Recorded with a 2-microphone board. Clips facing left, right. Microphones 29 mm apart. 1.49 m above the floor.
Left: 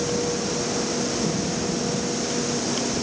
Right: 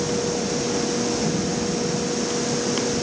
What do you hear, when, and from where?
Only background noise.